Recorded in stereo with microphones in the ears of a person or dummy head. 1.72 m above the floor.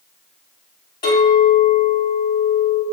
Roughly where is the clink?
Left.